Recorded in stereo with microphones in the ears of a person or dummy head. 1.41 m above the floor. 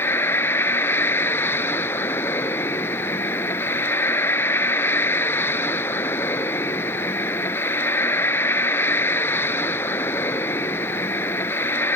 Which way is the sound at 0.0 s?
10° left (ahead or behind).